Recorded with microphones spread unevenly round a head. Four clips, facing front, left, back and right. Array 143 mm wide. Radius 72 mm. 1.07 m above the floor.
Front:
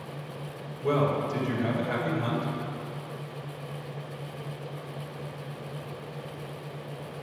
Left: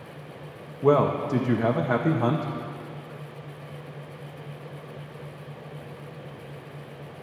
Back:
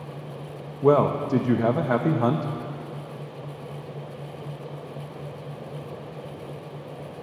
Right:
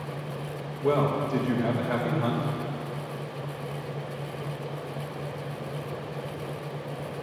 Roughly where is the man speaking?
Behind.